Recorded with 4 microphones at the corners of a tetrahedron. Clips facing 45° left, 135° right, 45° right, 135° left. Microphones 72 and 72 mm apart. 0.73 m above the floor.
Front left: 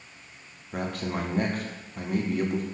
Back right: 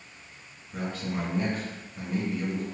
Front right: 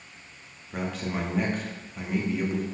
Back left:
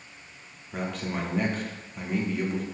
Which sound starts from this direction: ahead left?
A man speaking, at 0.7 s.